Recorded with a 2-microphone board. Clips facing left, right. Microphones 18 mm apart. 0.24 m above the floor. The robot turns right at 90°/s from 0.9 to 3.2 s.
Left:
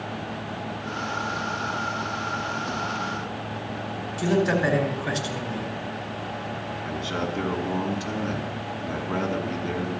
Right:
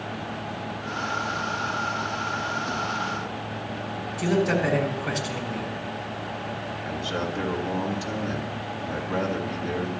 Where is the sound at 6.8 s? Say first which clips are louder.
Even; 45° left (ahead or behind), 2.5 m.